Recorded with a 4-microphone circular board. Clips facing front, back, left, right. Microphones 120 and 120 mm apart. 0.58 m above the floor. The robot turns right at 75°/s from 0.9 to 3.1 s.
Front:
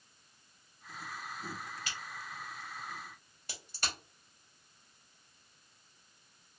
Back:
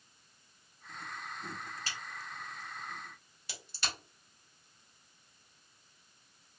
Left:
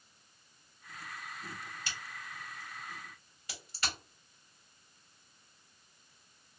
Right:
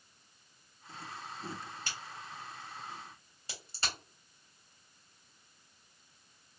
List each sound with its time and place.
1.9 s a crack: 130° right, 2 m; by 3.9 s 35° right, 2 m